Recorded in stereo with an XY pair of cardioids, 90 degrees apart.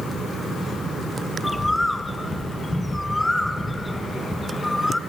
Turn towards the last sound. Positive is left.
turn(degrees=15)